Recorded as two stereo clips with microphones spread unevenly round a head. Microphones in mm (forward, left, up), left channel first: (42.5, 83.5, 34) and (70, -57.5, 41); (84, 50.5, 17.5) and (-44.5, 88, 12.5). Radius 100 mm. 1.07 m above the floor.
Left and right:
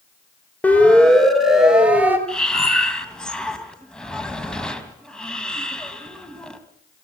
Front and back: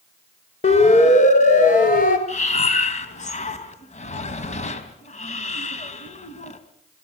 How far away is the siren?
About 5.5 m.